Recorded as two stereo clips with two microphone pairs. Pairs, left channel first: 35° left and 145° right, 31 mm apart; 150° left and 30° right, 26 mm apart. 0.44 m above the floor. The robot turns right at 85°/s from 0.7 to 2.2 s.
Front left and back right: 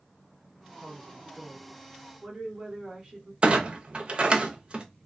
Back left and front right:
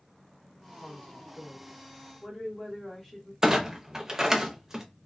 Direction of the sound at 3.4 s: 100° right.